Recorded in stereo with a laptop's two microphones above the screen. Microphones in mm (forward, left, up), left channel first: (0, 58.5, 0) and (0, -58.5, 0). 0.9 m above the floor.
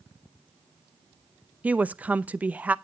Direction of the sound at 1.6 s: 10° right (ahead or behind).